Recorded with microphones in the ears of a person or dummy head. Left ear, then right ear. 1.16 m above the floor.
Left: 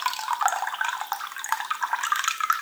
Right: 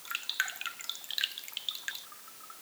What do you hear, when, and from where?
Only background noise.